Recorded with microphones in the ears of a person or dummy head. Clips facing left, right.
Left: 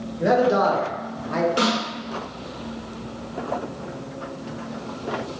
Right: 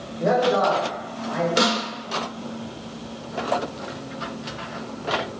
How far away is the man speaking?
About 1.1 m.